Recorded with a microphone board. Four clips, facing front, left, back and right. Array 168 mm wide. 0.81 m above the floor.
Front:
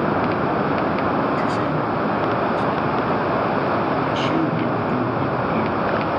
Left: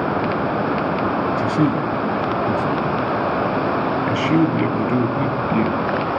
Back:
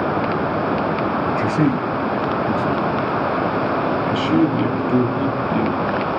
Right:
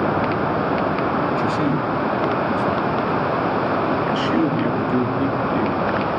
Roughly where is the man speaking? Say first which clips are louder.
Left 1 dB, back 2 dB; behind left.